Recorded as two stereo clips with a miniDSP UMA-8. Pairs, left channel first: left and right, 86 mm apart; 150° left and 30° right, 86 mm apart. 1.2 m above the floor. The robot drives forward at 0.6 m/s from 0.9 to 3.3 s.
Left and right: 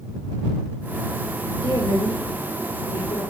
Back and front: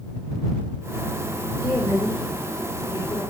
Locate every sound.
1.6 s a woman speaking: 95° left, 6 m; by 3.2 s 105° left, 6.5 m